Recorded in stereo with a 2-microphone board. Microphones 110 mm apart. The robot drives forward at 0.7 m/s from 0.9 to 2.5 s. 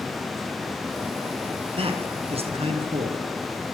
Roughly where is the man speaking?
Right.